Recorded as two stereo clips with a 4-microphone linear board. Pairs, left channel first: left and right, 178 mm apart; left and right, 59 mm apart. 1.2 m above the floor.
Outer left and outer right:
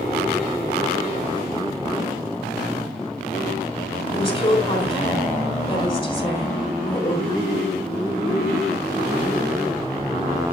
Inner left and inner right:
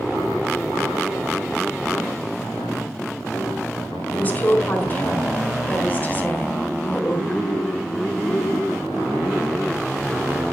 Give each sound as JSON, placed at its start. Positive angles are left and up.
{"t": 4.1, "sound": "a woman speaking", "side_deg": 35, "distance_m": 4.0}